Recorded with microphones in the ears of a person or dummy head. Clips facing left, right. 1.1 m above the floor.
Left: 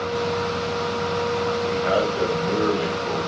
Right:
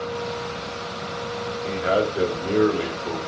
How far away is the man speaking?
About 4 m.